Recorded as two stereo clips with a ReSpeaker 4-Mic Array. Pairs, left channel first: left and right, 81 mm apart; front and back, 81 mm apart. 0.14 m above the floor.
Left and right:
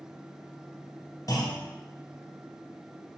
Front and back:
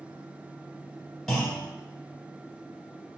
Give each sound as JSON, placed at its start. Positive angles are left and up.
{"t": 1.3, "sound": "a clunk", "azimuth_deg": 85, "distance_m": 1.5}